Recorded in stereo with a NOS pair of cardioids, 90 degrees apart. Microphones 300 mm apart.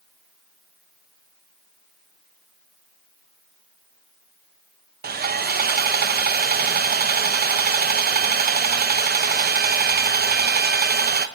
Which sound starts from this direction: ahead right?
Sawing, at 5.0 s.